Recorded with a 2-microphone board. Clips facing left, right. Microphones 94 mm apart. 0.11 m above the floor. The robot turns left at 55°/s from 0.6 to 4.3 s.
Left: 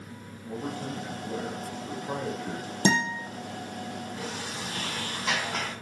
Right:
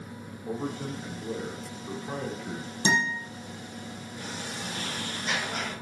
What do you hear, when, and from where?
0.5 s a man speaking: 100° right, 6.5 m; by 2.7 s 145° left, 6.5 m
2.9 s a guitar: 55° left (ahead or behind), 4 m; by 3.1 s 65° left (ahead or behind), 4 m
4.2 s a sliding door: 80° left, 4.5 m; by 5.7 s 75° left (ahead or behind), 4.5 m